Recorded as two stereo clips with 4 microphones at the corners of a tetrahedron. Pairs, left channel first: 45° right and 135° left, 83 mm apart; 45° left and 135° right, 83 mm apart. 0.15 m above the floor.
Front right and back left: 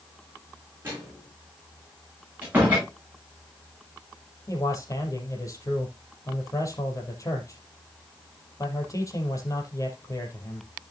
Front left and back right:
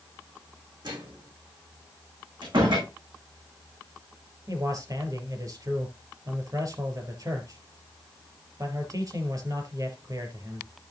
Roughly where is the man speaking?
Right.